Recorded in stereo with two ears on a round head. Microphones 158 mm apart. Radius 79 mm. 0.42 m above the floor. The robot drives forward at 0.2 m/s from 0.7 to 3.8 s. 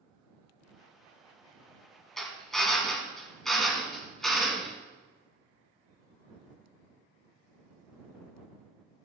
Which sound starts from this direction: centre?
A drill, at 2.2 s.